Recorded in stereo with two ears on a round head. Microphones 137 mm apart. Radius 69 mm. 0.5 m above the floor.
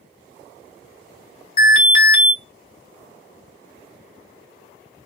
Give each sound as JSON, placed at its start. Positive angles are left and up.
{"t": 1.6, "sound": "an alarm", "side_deg": 35, "distance_m": 1.5}